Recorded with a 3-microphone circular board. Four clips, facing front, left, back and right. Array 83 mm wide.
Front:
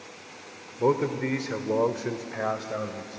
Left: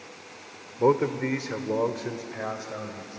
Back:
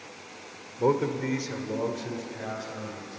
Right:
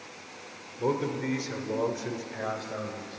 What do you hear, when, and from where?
0.8 s a man speaking: 85° left, 1.4 m; by 3.2 s straight ahead, 2.5 m